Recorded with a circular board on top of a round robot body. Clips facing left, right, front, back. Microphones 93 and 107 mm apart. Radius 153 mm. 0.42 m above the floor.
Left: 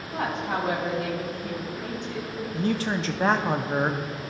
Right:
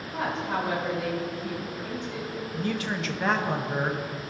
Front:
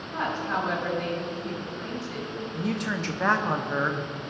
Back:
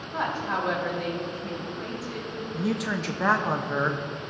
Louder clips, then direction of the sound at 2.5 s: Left 4 dB, back 2 dB; 95° left.